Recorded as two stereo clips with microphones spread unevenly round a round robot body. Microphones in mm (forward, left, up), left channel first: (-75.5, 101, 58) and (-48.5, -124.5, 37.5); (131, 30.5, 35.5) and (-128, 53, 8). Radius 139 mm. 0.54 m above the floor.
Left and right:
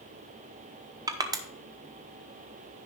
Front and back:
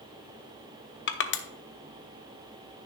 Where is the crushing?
25° right, 0.8 m.